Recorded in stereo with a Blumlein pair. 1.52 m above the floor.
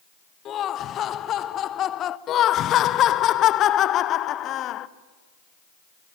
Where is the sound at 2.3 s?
30° left, 0.9 m.